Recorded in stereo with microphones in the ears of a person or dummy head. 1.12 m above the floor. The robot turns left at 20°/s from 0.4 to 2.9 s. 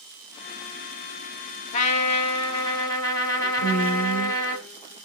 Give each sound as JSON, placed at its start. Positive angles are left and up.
{"t": 1.7, "sound": "a trumpet", "side_deg": 45, "distance_m": 1.6}
{"t": 3.6, "sound": "a woman speaking", "side_deg": 75, "distance_m": 4.5}